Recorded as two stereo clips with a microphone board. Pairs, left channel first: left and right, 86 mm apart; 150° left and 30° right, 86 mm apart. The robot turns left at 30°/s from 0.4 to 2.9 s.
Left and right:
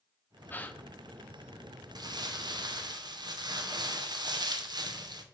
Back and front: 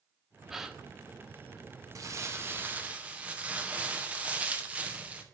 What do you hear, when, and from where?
0.5 s a gasp: 55° left, 0.6 m; by 0.8 s 45° left, 0.6 m
1.9 s crumpling: 70° right, 0.7 m; by 5.2 s 100° right, 0.7 m